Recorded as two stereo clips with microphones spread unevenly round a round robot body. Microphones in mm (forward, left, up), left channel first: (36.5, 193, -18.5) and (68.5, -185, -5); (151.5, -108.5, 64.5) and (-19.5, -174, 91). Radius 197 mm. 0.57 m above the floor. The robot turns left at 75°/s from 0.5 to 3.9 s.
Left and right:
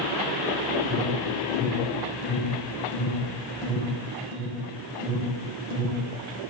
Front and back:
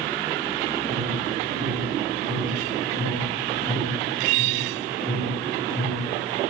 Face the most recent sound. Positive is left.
turn(degrees=-15)